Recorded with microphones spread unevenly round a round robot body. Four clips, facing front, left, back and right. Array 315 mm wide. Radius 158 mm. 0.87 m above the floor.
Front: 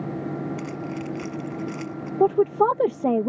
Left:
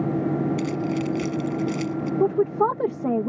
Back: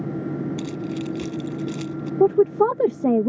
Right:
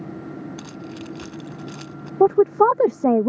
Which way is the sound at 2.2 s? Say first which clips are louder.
Right 7 dB, back 2 dB; 145° right.